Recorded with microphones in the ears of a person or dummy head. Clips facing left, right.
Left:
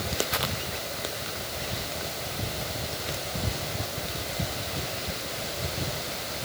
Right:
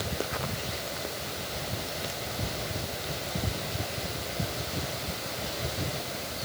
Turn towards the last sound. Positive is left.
No sound to turn to.